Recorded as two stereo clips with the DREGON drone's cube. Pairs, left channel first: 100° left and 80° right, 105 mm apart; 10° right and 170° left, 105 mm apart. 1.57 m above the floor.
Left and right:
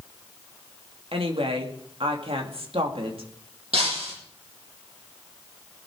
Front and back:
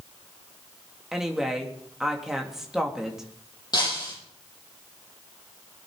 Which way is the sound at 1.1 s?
105° right.